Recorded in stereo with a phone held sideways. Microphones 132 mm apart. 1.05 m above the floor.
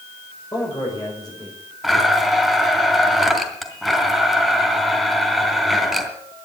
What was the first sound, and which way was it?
A man speaking, 25° left (ahead or behind).